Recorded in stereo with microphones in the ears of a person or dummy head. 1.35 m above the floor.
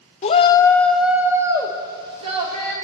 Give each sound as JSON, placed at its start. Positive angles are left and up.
{"t": 0.2, "sound": "a shout", "side_deg": 35, "distance_m": 0.7}